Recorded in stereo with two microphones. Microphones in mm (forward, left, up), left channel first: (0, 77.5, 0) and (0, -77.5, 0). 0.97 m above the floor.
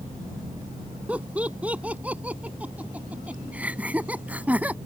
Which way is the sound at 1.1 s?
10° right (ahead or behind).